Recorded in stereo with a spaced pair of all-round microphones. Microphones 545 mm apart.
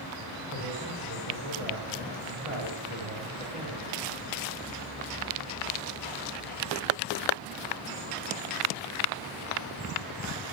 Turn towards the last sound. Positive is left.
turn(degrees=-75)  # may be behind; listen again after turning